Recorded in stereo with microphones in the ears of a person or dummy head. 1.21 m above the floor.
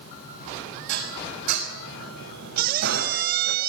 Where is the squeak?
55° right (ahead or behind), 1.6 m.